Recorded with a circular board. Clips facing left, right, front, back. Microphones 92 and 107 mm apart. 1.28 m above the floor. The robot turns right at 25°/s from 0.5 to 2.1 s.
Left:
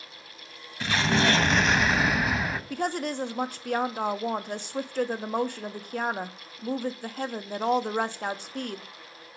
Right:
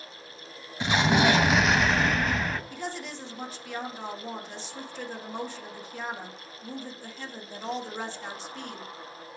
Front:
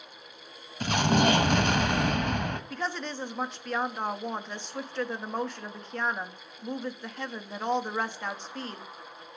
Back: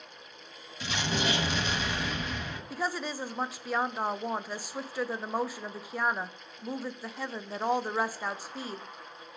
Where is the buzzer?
I don't hear a buzzer.